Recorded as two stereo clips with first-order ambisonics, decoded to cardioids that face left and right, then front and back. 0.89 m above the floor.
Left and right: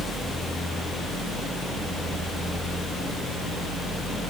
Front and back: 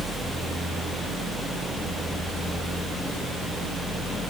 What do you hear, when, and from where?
Only background noise.